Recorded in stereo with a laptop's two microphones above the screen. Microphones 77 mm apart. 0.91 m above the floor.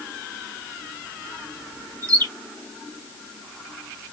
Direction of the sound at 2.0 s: 55° right (ahead or behind).